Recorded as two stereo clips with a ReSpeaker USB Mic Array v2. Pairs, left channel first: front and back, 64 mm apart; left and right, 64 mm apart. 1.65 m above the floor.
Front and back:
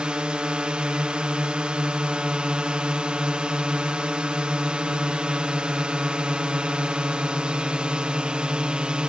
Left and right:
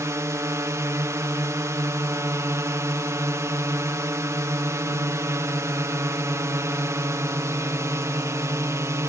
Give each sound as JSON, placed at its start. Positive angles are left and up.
{"t": 0.0, "sound": "a drone", "azimuth_deg": -110}